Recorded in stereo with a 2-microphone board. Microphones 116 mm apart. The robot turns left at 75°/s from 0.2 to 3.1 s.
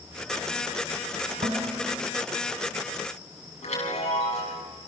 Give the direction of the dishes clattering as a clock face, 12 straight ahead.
3 o'clock.